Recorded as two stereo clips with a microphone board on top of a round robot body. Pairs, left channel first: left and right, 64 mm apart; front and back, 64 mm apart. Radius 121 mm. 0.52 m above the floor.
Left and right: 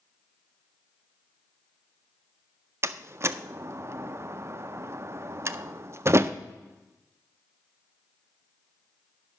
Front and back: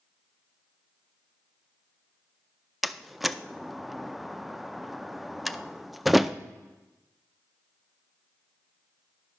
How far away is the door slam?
About 0.6 m.